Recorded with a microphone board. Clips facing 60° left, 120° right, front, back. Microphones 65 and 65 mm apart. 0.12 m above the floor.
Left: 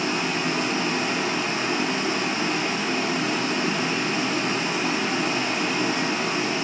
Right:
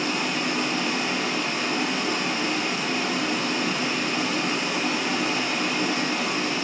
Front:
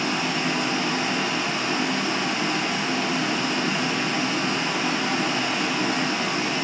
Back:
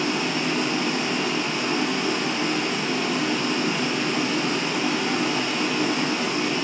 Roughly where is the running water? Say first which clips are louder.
Left 1 dB, even; ahead left.